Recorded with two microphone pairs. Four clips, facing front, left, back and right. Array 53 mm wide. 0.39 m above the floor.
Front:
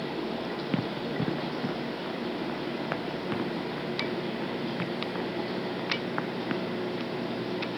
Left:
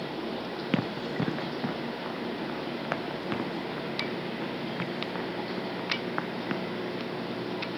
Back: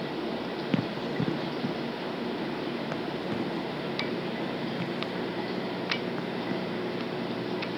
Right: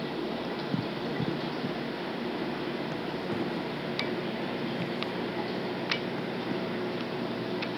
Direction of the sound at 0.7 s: 85° left.